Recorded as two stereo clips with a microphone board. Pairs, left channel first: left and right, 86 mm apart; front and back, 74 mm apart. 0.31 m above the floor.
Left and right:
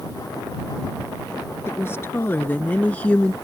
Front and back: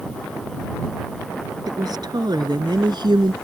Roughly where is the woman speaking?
Behind left.